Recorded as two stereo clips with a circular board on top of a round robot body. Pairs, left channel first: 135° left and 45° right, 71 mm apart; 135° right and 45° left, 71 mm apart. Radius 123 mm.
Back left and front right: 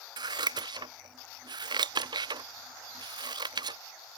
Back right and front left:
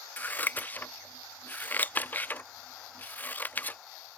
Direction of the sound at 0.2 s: 65° right.